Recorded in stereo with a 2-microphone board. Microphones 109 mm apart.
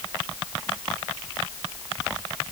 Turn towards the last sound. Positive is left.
No sound to turn to.